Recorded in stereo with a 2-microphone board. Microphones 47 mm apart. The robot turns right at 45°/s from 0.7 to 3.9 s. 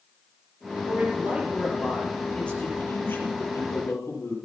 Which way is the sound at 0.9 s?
50° right.